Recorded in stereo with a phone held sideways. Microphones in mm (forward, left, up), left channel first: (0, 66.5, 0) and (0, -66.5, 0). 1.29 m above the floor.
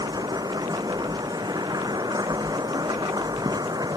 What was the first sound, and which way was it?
A machine running, 30° right (ahead or behind).